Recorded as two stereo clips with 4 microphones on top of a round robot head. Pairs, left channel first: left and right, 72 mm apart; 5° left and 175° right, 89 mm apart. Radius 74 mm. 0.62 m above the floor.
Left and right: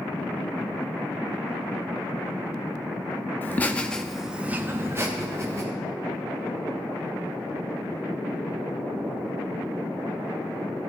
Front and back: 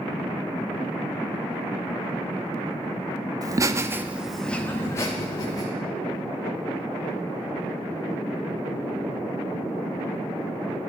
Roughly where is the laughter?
Behind left.